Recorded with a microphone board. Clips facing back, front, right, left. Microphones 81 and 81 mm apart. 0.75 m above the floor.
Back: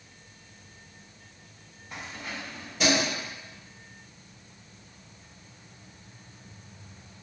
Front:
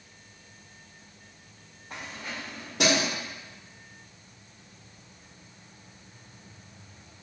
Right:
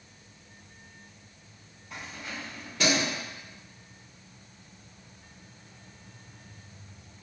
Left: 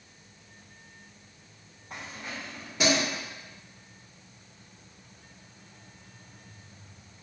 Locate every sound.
1.9 s keys jangling: 40° left, 1.7 m; by 3.1 s 5° left, 0.9 m